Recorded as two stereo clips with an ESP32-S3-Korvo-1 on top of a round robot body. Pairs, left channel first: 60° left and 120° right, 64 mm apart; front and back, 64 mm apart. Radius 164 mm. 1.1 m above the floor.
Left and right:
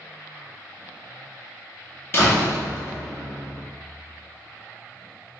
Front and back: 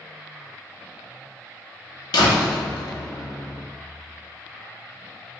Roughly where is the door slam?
Ahead.